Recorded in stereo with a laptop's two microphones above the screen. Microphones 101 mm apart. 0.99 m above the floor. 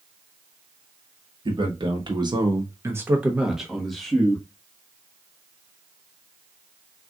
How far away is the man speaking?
About 1.1 m.